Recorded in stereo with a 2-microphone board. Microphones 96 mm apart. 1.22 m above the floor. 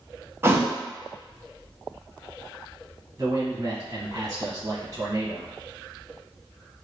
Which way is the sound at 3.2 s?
55° right (ahead or behind).